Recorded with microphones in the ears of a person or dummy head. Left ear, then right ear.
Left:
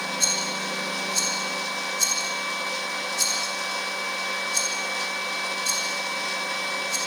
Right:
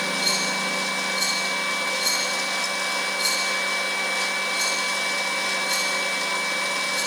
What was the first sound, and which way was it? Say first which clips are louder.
A rattle: even; 65° left (ahead or behind).